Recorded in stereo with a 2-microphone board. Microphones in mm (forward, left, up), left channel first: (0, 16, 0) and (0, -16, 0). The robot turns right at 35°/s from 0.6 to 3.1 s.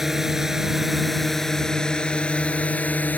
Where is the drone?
10° right (ahead or behind); by 3.2 s 55° left (ahead or behind).